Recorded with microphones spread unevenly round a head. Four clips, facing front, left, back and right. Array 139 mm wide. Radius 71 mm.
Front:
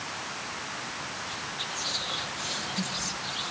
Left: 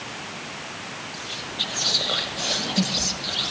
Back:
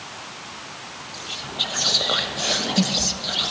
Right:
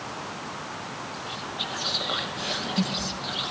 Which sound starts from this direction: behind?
Whispering, at 1.1 s.